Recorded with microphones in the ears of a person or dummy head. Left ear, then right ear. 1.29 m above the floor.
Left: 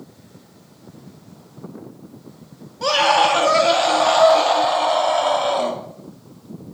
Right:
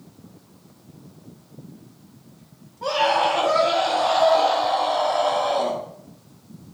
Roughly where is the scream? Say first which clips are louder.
Left 4 dB; left.